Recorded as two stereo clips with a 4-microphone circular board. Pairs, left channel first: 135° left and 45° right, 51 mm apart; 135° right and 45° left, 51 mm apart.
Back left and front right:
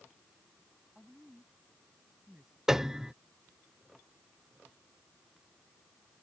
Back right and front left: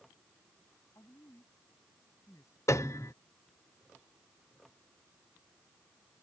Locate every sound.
0.9 s a woman speaking: 130° right
2.7 s a piano: 125° right